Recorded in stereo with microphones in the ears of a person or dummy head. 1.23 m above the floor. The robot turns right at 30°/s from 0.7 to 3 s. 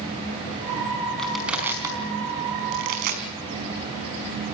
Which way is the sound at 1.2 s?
5° left (ahead or behind).